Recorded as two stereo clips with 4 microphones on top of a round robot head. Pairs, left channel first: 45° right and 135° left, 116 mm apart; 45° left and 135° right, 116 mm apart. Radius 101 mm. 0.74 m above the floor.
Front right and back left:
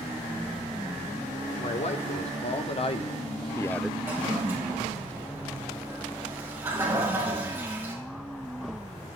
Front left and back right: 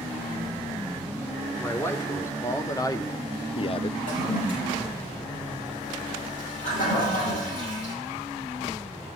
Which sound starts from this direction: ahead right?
A man speaking, at 1.6 s.